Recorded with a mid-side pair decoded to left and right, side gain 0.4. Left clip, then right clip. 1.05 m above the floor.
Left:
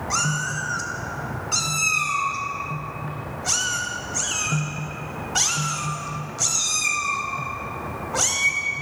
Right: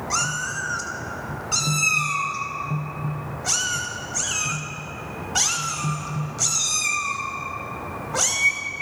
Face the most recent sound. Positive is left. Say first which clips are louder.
# even
turn(degrees=-5)